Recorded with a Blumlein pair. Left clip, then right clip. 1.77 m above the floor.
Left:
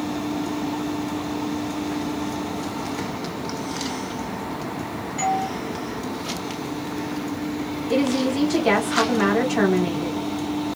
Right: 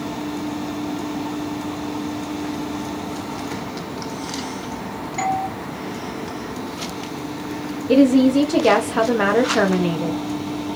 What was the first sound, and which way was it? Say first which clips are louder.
A doorbell: right 1 dB; 70° right.